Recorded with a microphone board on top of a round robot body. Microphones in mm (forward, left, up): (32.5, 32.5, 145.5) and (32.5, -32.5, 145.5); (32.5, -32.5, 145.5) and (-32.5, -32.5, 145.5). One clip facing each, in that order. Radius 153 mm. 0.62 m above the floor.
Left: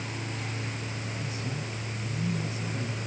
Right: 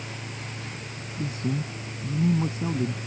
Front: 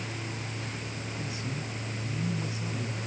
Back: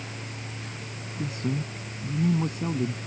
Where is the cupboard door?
I don't hear a cupboard door.